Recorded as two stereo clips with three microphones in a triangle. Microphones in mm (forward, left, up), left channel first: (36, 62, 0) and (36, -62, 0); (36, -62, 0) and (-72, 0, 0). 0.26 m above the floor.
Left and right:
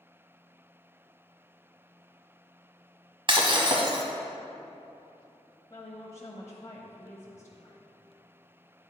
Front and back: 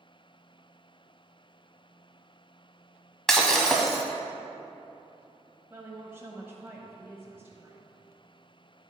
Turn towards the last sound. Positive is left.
turn(degrees=105)